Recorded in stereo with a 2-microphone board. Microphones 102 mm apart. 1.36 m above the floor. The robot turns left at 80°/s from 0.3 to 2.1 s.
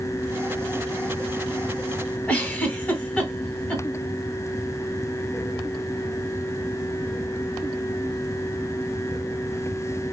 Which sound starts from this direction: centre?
A giggle, at 2.3 s.